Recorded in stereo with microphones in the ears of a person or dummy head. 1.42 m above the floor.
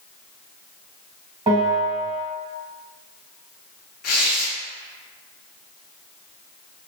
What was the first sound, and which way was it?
A bell, 25° right (ahead or behind).